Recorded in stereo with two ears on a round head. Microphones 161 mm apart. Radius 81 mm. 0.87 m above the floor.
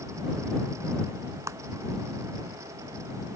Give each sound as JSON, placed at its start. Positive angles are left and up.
{"t": 1.5, "sound": "a clap", "side_deg": -15}